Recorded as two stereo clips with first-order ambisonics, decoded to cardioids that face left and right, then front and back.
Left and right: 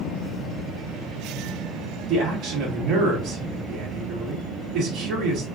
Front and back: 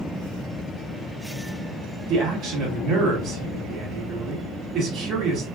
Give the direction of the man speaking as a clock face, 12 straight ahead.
4 o'clock.